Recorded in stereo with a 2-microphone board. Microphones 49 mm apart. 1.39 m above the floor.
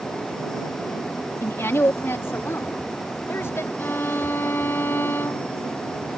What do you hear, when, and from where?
1.4 s a woman speaking: 60° left (ahead or behind)
3.8 s a violin: 50° left (ahead or behind)